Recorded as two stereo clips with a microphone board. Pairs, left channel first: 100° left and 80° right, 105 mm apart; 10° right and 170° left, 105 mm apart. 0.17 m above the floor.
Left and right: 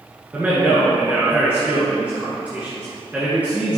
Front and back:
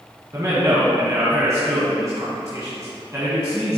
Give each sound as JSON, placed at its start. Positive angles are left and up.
{"t": 0.3, "sound": "a man speaking", "azimuth_deg": -145, "distance_m": 1.6}